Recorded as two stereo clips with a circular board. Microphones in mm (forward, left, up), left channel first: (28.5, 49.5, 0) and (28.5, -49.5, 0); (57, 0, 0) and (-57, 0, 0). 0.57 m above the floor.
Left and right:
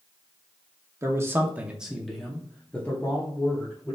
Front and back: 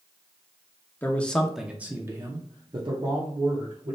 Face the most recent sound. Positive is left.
turn(degrees=150)